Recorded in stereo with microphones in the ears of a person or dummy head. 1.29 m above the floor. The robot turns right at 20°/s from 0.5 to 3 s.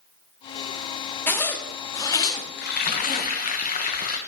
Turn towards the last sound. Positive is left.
turn(degrees=40)  # may be behind; listen again after turning